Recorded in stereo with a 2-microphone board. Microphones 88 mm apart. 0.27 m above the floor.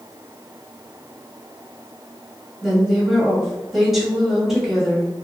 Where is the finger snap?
No finger snap in this recording.